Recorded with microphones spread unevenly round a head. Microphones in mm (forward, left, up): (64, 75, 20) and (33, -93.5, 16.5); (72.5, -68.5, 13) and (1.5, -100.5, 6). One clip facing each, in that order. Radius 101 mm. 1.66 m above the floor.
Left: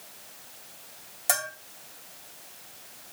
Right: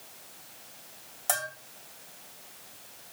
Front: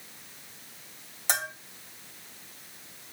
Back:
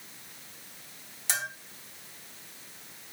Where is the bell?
5° left, 2.5 m.